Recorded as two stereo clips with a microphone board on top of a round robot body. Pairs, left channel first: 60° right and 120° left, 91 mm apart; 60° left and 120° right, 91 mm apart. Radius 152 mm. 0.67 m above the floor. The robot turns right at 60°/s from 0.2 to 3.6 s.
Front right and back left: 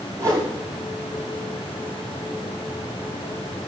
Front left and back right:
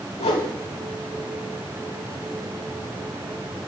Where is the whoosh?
60° left, 0.8 m; by 0.5 s 75° left, 0.8 m.